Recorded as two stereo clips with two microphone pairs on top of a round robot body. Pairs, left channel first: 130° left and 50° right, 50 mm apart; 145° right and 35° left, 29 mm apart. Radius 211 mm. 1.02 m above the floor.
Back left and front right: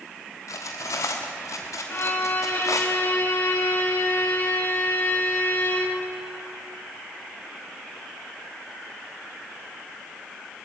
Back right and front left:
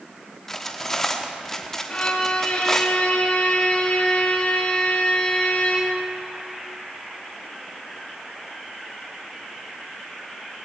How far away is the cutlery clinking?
About 1.2 m.